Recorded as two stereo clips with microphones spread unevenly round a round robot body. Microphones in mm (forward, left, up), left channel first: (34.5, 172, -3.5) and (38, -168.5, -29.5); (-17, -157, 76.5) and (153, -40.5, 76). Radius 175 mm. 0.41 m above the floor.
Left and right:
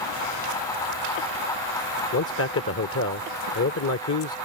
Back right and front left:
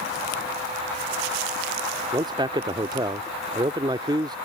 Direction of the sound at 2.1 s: 85° left.